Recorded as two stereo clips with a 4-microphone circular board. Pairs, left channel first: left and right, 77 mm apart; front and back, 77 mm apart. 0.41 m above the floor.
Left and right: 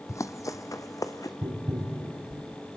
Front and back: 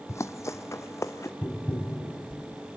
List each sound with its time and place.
0.1 s running footsteps: 45° left, 1.0 m; by 1.3 s 50° left, 1.7 m
1.4 s tapping: 70° right, 2.5 m